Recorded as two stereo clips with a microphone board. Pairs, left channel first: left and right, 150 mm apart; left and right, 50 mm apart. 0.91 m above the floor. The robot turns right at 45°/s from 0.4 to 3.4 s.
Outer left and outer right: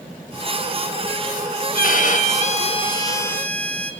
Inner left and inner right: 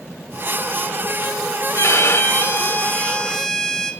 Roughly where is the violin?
Left.